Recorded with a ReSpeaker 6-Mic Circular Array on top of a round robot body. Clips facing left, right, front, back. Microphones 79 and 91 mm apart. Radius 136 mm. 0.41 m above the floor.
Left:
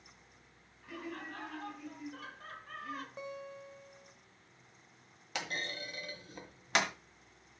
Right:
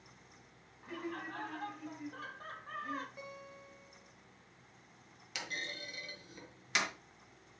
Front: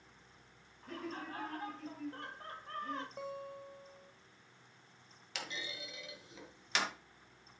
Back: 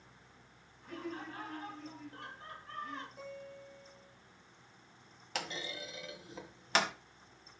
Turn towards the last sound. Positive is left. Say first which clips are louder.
# left 4 dB, back 4 dB
turn(degrees=135)